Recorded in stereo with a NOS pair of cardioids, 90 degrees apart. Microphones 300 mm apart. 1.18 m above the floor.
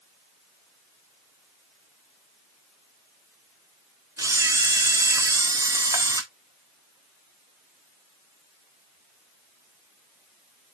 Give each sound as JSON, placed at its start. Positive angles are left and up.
{"t": 4.2, "sound": "a camera shutter", "azimuth_deg": -10, "distance_m": 1.4}